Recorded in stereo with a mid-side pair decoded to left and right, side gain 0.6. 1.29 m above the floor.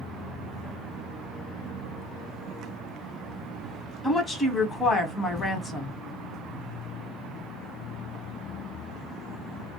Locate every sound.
4.0 s a woman speaking: 30° left, 1.1 m